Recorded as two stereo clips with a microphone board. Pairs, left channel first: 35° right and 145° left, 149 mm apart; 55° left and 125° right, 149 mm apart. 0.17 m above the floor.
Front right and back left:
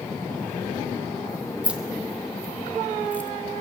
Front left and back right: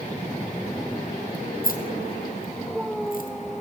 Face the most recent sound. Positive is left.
turn(degrees=45)